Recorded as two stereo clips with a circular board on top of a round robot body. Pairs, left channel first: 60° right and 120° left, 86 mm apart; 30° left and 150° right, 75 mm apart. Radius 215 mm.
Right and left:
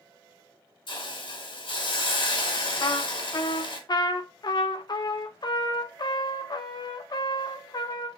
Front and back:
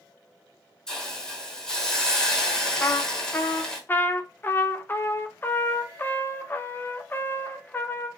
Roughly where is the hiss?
Ahead right.